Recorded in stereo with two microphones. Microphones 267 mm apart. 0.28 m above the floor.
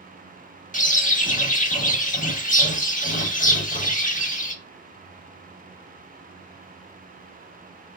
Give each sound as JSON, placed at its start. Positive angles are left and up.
{"t": 0.7, "sound": "a bird", "side_deg": 30, "distance_m": 0.6}